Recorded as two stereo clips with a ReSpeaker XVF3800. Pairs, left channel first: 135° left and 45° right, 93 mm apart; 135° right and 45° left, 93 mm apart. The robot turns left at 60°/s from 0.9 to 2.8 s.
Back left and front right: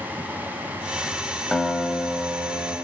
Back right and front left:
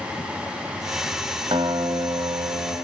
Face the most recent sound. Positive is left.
turn(degrees=-25)